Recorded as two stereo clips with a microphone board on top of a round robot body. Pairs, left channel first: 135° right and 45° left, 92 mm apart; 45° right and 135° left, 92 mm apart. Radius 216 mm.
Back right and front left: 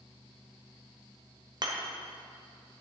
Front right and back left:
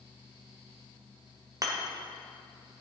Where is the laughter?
No laughter in this recording.